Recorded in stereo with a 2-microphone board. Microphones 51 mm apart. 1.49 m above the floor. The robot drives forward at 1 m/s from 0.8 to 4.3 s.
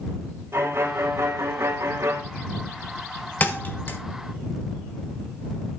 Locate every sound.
0.5 s a violin: 45° right (ahead or behind), 3.5 m; by 2.2 s 65° right (ahead or behind), 3 m
3.4 s a thud: 35° left (ahead or behind), 1.8 m; by 4.0 s 40° left (ahead or behind), 1.5 m